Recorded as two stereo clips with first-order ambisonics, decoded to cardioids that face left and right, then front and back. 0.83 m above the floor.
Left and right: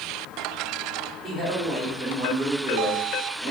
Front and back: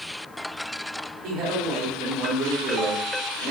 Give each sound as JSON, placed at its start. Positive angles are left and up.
{"t": 1.2, "sound": "a man speaking", "azimuth_deg": -165, "distance_m": 2.0}